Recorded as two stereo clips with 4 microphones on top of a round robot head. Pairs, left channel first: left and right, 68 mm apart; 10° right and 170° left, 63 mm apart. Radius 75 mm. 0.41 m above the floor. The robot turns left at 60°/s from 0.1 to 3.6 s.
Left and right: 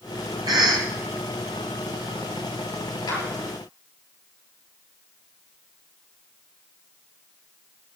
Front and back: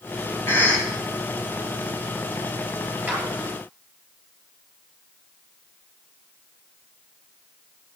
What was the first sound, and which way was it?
A cough, 65° right.